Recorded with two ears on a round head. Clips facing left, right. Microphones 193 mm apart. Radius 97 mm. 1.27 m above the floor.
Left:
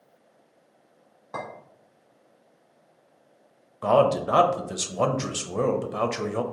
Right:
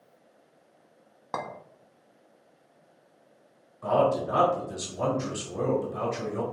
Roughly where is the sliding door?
No sliding door in this recording.